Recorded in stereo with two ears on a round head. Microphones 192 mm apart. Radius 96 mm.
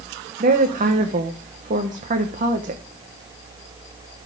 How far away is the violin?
No violin in this recording.